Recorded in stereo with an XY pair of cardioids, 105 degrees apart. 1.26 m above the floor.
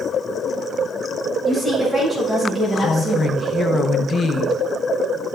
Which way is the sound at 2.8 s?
40° left.